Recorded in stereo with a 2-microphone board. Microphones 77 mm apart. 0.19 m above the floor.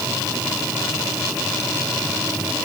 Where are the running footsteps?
No running footsteps in this recording.